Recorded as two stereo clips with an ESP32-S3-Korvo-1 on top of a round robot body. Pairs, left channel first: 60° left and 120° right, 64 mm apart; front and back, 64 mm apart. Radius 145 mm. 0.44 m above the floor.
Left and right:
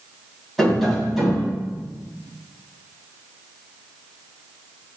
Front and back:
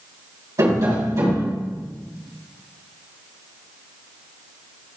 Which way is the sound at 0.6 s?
150° left.